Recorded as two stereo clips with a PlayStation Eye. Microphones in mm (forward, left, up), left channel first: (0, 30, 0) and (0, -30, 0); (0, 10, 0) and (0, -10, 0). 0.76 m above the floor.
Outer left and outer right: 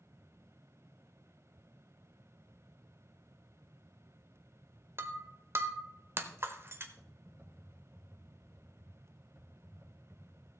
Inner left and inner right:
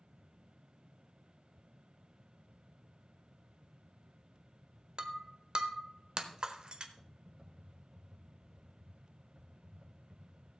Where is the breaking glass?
45° right (ahead or behind), 1.0 m.